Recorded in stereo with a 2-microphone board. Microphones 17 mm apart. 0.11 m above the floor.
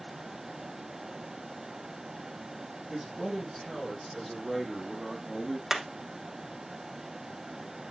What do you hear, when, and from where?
2.9 s a man speaking: 10° left (ahead or behind), 5.5 m; by 5.6 s 5° left (ahead or behind), 3.5 m
5.7 s hammering: 15° right (ahead or behind), 1.0 m